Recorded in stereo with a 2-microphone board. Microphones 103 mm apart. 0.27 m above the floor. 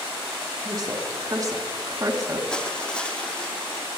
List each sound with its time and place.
0.7 s a woman speaking: 40° right (ahead or behind), 3.5 m; by 2.4 s 35° right (ahead or behind), 3 m
2.5 s crushing: 10° left (ahead or behind), 2 m